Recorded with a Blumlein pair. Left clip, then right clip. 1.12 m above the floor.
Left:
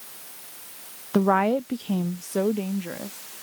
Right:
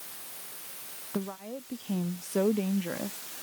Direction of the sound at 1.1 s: 65° left.